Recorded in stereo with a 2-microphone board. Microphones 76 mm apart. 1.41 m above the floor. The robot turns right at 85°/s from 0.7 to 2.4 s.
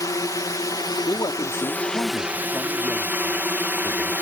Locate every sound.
0.0 s a drone: 65° left; by 4.2 s 150° right
1.1 s a man speaking: 45° left; by 4.1 s 160° left